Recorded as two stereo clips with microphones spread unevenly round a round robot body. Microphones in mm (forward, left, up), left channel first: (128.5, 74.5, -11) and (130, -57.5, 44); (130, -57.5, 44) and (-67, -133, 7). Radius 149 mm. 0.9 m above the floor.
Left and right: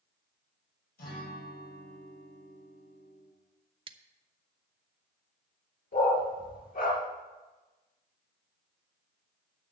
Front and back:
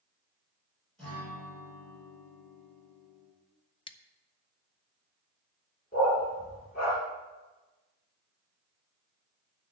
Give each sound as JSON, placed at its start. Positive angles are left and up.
{"t": 1.0, "sound": "a guitar", "azimuth_deg": 110, "distance_m": 7.0}
{"t": 3.9, "sound": "scissors", "azimuth_deg": -35, "distance_m": 0.7}
{"t": 5.9, "sound": "a dog barking", "azimuth_deg": 80, "distance_m": 3.5}